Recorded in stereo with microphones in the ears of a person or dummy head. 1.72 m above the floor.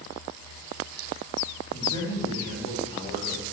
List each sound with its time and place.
1.7 s a man speaking: 20° left (ahead or behind), 7 m; by 3.4 s 35° left (ahead or behind), 6 m